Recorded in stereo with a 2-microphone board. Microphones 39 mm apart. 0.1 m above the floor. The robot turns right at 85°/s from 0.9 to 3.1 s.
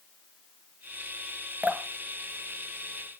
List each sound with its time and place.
1.6 s dripping: 40° right (ahead or behind), 1.4 m; by 1.8 s 45° right (ahead or behind), 1.4 m